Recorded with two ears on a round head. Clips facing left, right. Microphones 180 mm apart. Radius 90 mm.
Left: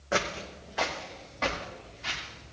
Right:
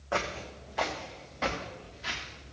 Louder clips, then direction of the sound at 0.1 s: Left 2 dB; 25° left (ahead or behind).